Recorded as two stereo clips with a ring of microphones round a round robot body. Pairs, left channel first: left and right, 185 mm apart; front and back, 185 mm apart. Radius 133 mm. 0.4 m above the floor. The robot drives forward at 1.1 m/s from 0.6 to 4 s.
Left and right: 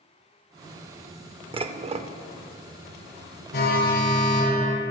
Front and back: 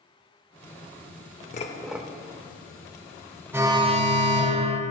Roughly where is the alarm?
Left.